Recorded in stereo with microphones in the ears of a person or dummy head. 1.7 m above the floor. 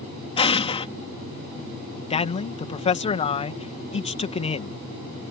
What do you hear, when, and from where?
0.4 s an explosion: 30° left (ahead or behind)
2.1 s a man speaking: 35° left (ahead or behind)